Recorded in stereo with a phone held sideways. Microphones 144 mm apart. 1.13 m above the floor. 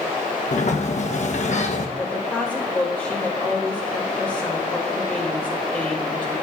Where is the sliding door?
55° left (ahead or behind), 1.1 m.